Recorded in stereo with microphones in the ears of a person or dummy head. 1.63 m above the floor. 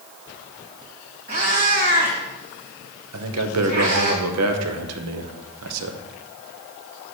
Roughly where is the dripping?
No dripping in this recording.